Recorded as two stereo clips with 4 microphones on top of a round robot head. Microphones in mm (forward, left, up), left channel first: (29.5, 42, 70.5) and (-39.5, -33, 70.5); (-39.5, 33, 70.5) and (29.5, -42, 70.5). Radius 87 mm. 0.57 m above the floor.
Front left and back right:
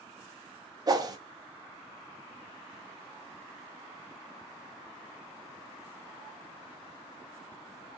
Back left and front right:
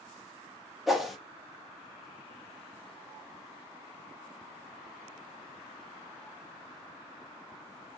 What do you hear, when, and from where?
0.9 s a whoosh: 135° right, 0.9 m